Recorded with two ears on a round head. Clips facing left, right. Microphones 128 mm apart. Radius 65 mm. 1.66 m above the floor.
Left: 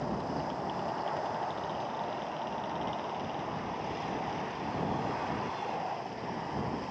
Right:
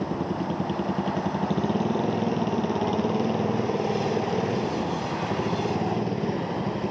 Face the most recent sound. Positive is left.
turn(degrees=-75)  # may be behind; listen again after turning